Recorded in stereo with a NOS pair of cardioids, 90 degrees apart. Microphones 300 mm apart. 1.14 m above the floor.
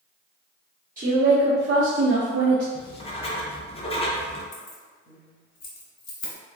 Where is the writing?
20° left, 0.5 m.